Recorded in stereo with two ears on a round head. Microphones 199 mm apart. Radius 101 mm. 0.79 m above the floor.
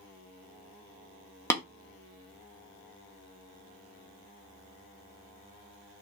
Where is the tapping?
10° left (ahead or behind), 0.5 m.